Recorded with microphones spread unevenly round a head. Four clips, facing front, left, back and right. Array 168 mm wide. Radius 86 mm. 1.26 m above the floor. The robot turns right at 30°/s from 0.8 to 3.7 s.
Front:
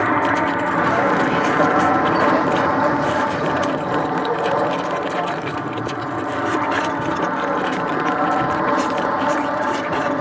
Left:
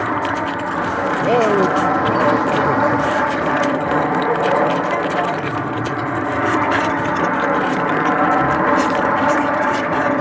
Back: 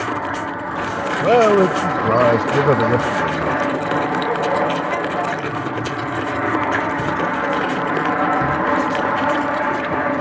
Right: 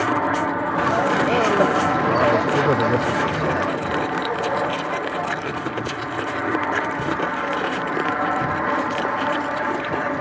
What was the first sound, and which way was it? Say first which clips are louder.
An aircraft: left 1 dB, front 5 dB; straight ahead.